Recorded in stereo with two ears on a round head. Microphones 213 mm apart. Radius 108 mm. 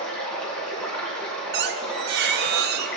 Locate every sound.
0.0 s running water: 5° left (ahead or behind), 3.5 m
1.5 s a squeak: 40° right (ahead or behind), 0.5 m